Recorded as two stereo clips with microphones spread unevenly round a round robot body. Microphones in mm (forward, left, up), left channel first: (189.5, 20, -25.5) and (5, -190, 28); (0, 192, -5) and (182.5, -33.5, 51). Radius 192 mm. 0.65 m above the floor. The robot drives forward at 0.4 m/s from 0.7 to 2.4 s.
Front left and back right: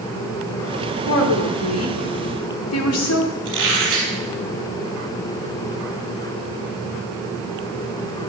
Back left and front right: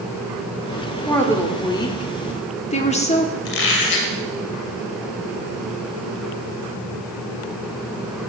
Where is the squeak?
155° left, 2.5 m.